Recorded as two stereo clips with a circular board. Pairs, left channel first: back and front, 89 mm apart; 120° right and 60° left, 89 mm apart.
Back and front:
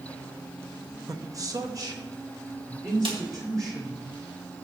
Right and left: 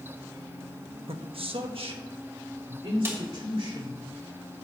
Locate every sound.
1.1 s a man speaking: 55° left, 0.7 m; by 4.0 s 50° left, 3.5 m
3.0 s a snare drum: straight ahead, 1.4 m